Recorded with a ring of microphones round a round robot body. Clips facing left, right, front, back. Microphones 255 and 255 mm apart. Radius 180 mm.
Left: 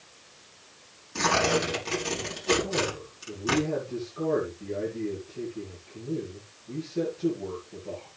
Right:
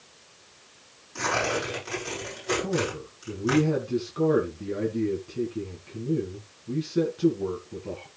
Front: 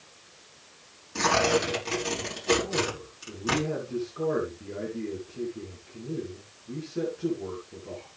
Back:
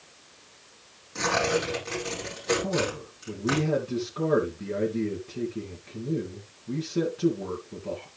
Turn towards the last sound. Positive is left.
turn(degrees=-125)